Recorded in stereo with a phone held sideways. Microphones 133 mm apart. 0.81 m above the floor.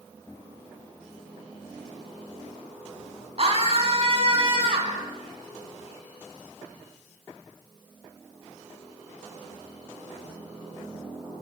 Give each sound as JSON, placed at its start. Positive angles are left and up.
{"t": 3.4, "sound": "a scream", "side_deg": -50, "distance_m": 5.5}